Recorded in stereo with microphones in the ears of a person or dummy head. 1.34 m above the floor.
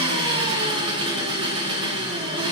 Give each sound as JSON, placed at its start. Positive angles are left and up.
{"t": 0.0, "sound": "an engine running", "side_deg": -25, "distance_m": 0.8}